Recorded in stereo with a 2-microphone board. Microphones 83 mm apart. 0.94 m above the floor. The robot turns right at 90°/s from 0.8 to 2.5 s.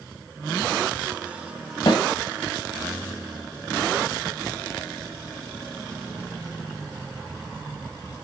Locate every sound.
1.9 s a snare drum: 80° left, 2.5 m; by 2.0 s 75° left (ahead or behind), 2.5 m